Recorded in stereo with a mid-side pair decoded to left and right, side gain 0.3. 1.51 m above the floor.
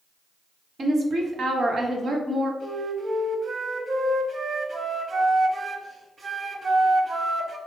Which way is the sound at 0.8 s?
70° right.